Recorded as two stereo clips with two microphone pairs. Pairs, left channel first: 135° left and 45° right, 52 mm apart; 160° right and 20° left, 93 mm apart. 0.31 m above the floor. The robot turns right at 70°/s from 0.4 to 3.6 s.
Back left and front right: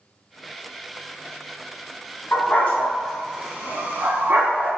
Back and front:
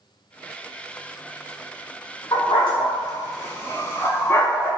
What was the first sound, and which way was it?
A dog barking, 175° left.